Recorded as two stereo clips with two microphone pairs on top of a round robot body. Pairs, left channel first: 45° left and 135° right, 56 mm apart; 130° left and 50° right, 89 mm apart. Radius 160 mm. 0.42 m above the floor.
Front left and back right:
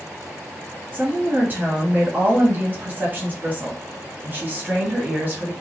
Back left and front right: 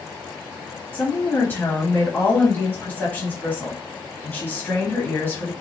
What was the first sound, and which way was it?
A woman speaking, 170° left.